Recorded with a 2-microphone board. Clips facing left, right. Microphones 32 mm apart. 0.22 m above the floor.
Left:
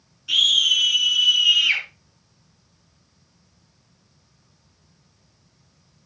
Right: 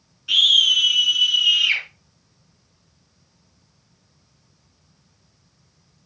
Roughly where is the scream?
Centre.